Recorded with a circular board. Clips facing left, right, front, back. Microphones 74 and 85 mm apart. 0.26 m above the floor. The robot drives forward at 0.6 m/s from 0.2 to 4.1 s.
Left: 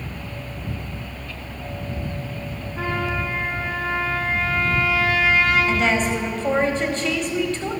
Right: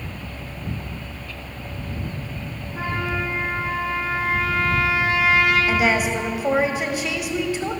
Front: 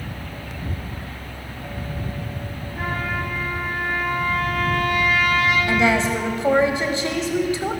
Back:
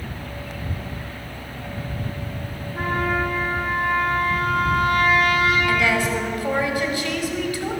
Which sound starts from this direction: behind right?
A trumpet, at 2.8 s.